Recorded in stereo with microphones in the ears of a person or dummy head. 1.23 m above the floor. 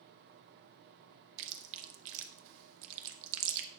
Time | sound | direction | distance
1.4 | chewing | 70° right (ahead or behind) | 0.9 m